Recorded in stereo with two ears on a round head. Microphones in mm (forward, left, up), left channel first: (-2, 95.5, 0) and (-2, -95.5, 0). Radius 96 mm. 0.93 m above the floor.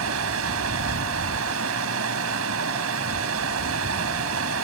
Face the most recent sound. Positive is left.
turn(degrees=-75)  # may be behind; listen again after turning